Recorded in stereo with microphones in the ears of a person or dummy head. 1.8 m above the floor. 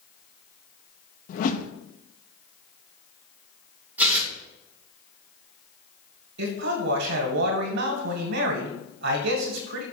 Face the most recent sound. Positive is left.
turn(degrees=-70)  # may be behind; listen again after turning